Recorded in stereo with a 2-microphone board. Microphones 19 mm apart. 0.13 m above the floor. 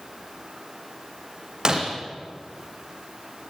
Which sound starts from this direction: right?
Breaking glass, at 1.6 s.